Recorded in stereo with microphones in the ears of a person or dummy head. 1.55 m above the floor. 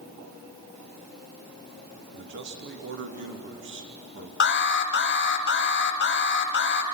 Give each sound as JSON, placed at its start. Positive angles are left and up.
{"t": 2.1, "sound": "a man speaking", "side_deg": -65, "distance_m": 3.0}
{"t": 4.4, "sound": "an alarm", "side_deg": 50, "distance_m": 1.4}